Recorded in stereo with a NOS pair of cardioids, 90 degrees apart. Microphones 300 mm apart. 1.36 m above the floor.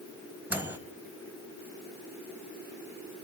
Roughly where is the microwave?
Ahead.